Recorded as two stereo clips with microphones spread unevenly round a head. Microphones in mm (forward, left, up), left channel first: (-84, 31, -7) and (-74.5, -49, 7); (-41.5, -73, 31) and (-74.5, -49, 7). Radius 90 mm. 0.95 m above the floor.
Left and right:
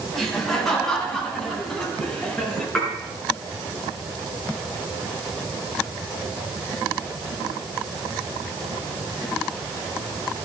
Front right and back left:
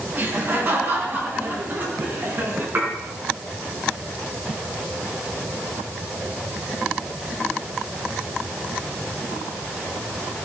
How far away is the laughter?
About 8.5 m.